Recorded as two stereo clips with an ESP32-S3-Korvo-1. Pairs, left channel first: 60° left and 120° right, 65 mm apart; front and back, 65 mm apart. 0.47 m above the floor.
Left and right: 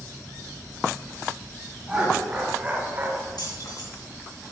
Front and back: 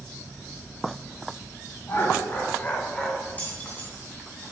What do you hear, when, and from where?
1.9 s laughter: 45° right, 2.5 m; by 3.3 s 85° right, 1.3 m
3.4 s keys jangling: 65° left, 2.5 m